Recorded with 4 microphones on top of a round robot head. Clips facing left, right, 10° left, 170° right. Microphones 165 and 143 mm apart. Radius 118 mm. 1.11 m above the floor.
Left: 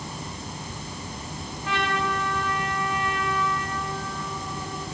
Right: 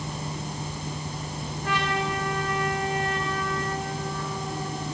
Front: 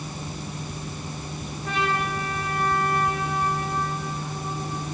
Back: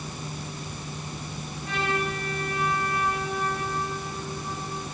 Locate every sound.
1.6 s a trumpet: 45° right, 6.5 m